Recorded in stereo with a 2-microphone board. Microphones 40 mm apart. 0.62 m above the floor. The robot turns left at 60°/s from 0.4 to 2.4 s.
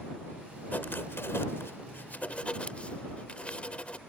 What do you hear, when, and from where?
0.7 s writing: 135° left; by 4.0 s 35° left